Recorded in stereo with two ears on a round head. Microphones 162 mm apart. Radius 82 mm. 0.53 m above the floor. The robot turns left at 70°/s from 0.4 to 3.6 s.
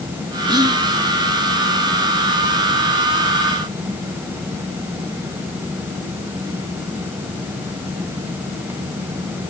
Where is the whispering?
25° right (ahead or behind), 0.6 m; by 0.8 s 20° right (ahead or behind), 0.6 m.